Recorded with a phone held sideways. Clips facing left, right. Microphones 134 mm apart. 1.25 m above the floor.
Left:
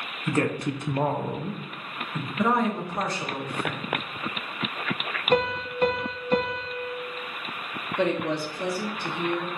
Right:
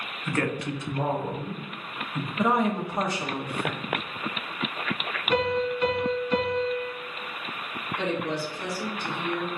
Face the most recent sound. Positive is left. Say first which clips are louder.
# left 4 dB
turn(degrees=60)  # may be behind; listen again after turning